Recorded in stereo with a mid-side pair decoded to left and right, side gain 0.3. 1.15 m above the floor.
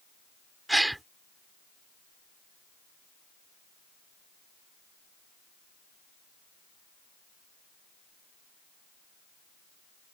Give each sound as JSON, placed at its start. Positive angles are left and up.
{"t": 0.7, "sound": "a gasp", "azimuth_deg": -15}